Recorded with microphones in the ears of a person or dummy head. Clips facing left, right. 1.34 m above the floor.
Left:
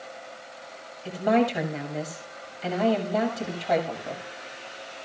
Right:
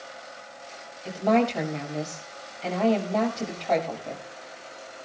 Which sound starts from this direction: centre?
A woman speaking, at 1.1 s.